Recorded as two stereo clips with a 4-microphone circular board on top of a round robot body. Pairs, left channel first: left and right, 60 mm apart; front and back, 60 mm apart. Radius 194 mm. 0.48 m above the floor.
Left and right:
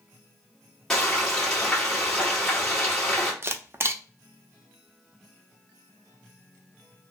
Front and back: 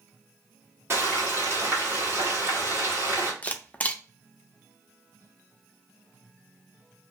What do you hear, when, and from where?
0.9 s frying: 165° left, 1.8 m
3.4 s a camera shutter: 55° right, 0.6 m